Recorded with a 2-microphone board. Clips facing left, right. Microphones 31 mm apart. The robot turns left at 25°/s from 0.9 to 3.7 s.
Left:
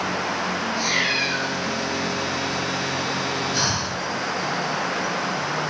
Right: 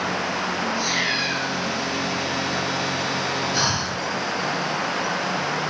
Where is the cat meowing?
55° left (ahead or behind), 4 m; by 1.5 s 70° left (ahead or behind), 4 m.